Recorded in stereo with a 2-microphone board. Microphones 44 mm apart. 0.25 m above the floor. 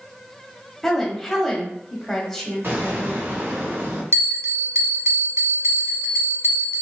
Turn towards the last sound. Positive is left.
turn(degrees=-65)  # may be behind; listen again after turning